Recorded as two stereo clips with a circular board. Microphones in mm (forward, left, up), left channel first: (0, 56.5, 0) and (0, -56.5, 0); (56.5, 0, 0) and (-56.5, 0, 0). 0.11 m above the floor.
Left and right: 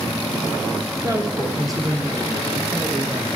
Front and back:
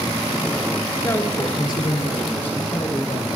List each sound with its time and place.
1.0 s a woman speaking: 55° right, 1.4 m; by 3.3 s 35° right, 4 m